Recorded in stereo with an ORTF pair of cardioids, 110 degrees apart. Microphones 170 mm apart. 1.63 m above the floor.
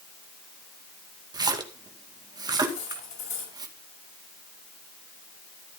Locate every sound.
1.3 s a splash: 25° right, 2 m
2.7 s cutlery clinking: 50° left, 6.5 m